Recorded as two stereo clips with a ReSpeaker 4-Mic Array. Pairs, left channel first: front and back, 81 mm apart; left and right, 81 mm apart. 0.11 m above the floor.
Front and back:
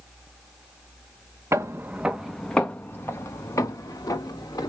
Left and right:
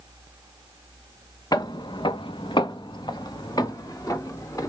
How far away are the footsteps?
About 0.7 m.